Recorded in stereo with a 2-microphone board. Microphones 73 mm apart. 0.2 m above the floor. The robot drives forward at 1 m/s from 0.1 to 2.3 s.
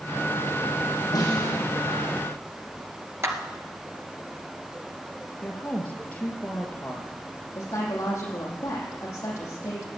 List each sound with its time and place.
1.1 s a snare drum: 60° left (ahead or behind), 8 m; by 1.6 s 55° left (ahead or behind), 8.5 m
3.2 s a clap: 35° right (ahead or behind), 2.5 m
5.4 s a woman speaking: 20° left (ahead or behind), 3 m
7.5 s a woman speaking: 40° left (ahead or behind), 8 m